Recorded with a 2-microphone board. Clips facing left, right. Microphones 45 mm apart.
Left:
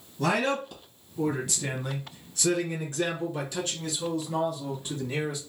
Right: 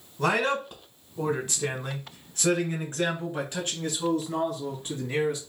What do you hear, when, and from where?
0.2 s a man speaking: 15° right (ahead or behind), 1.2 m; by 5.4 s 30° right (ahead or behind), 3 m